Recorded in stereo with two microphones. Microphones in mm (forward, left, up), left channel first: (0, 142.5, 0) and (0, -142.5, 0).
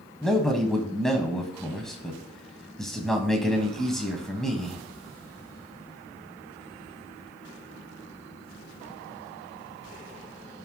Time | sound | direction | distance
0.2 | a man speaking | centre (ahead or behind) | 1.6 m